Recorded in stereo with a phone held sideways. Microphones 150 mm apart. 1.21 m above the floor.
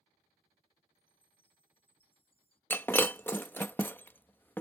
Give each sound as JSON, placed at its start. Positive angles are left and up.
{"t": 0.9, "sound": "a chime", "side_deg": 35}
{"t": 2.7, "sound": "breaking glass", "side_deg": 15}